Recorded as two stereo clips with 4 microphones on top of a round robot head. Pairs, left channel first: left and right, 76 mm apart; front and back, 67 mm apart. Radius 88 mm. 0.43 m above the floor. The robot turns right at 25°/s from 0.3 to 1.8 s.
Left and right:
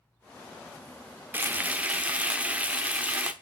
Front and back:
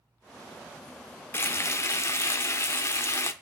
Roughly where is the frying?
Ahead right.